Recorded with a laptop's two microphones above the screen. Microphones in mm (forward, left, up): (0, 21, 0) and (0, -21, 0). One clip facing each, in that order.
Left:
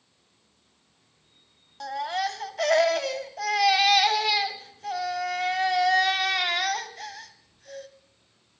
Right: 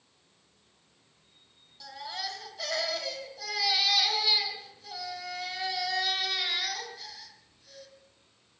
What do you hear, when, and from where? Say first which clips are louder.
1.8 s a baby crying: left 10 dB; 55° left (ahead or behind), 2.5 m